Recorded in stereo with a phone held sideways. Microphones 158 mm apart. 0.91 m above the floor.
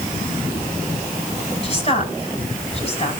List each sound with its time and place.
1.6 s a woman speaking: 40° left (ahead or behind), 6 m